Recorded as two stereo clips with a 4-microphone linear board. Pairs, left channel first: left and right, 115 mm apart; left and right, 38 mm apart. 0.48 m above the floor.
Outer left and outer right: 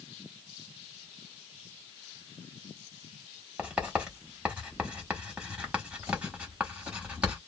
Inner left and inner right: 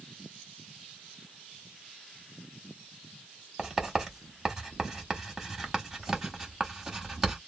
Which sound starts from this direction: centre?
Writing, at 3.6 s.